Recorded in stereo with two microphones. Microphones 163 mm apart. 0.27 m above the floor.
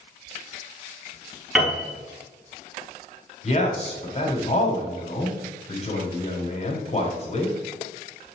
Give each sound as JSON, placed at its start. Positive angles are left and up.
{"t": 1.6, "sound": "a piano", "side_deg": -5, "distance_m": 2.5}
{"t": 3.4, "sound": "a man speaking", "side_deg": 40, "distance_m": 1.9}